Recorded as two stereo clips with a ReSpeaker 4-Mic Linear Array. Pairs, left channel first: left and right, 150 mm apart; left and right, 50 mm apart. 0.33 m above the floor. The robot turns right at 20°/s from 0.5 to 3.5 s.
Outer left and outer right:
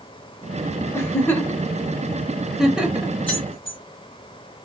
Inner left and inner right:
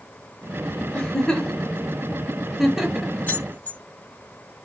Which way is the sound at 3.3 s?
35° left (ahead or behind).